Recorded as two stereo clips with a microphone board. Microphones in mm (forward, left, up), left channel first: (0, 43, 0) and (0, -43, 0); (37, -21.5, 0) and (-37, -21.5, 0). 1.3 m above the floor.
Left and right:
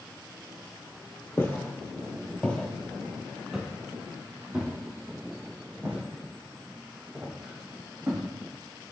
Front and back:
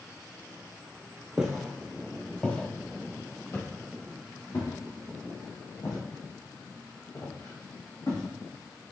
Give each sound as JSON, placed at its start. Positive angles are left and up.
{"t": 1.4, "sound": "footsteps", "azimuth_deg": 110, "distance_m": 1.4}